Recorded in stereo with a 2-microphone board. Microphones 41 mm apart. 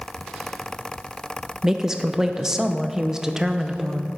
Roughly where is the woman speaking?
Centre.